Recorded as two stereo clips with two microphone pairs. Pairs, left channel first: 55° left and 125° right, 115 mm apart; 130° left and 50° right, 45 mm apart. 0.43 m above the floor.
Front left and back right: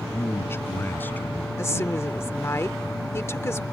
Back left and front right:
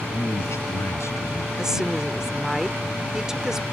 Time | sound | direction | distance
0.1 | a man speaking | 120° left | ?
1.6 | a woman speaking | 15° left | ?